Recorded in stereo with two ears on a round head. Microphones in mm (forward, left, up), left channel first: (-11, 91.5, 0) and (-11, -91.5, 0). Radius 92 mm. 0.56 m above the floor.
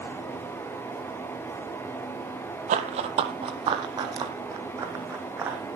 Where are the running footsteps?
35° right (ahead or behind), 1.2 m; by 5.6 s 10° right (ahead or behind), 2.5 m.